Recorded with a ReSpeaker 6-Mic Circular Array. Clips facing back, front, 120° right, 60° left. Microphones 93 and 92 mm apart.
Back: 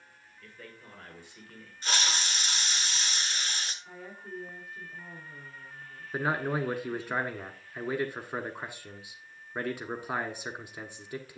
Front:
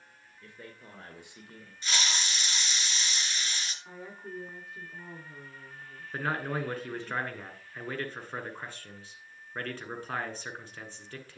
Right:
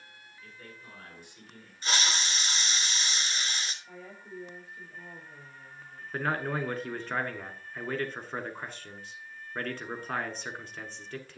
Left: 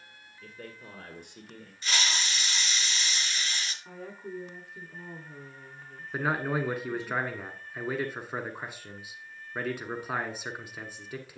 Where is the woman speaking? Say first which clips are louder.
Front 1 dB, left 5 dB; 65° left, 5 m.